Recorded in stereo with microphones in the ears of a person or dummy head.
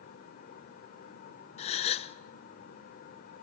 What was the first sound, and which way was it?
A fan, 45° left (ahead or behind).